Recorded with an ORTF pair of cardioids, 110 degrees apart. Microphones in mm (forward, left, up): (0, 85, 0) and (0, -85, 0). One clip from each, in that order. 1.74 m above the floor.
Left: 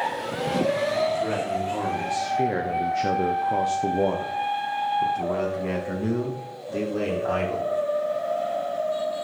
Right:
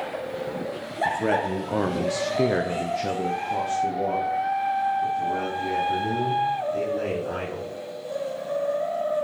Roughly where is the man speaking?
Ahead right.